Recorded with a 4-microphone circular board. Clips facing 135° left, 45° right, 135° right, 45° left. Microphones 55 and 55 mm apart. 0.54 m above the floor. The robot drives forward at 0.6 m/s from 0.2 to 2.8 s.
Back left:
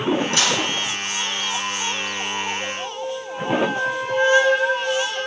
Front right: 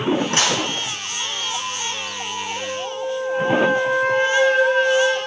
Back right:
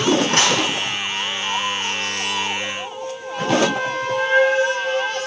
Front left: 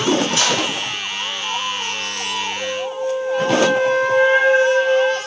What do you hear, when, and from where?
0.3 s dishes clattering: 95° right, 3 m; by 0.6 s 100° right, 3 m
2.6 s a flute: 25° right, 3 m